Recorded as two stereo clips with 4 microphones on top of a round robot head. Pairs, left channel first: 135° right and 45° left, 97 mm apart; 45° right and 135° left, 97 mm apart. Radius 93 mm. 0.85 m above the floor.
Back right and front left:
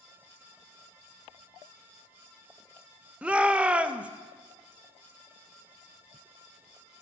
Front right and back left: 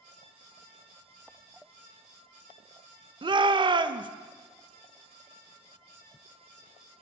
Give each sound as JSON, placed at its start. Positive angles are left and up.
{"t": 3.2, "sound": "a shout", "azimuth_deg": 120, "distance_m": 0.7}